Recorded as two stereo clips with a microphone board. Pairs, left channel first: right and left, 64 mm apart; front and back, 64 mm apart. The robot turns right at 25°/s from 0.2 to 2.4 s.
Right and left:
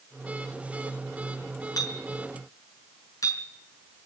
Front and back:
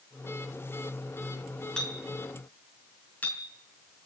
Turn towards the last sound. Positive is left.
turn(degrees=-65)